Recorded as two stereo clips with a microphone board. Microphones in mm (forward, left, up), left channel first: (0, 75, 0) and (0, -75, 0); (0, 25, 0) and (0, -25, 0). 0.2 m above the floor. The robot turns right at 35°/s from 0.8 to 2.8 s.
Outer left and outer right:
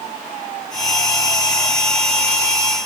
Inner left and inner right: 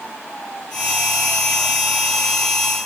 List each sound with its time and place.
Only background noise.